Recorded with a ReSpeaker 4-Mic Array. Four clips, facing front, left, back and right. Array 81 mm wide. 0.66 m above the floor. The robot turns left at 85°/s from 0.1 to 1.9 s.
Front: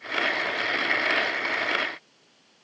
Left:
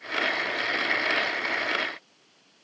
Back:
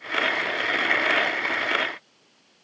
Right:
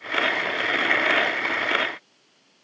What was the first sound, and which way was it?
Only background noise.